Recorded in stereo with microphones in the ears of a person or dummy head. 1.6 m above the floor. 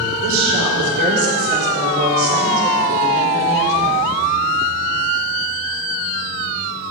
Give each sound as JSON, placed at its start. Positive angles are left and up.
{"t": 0.2, "sound": "a woman speaking", "side_deg": -80, "distance_m": 4.0}